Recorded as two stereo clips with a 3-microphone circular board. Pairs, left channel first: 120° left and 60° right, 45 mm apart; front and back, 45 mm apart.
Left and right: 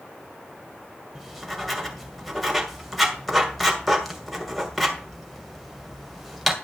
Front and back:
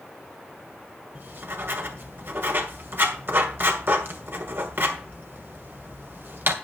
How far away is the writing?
About 2 m.